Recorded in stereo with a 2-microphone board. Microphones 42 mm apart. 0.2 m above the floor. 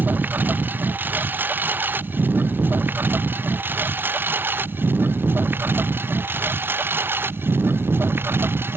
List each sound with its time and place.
0.0 s a lawn mower: 45° right (ahead or behind); by 8.8 s 55° right (ahead or behind)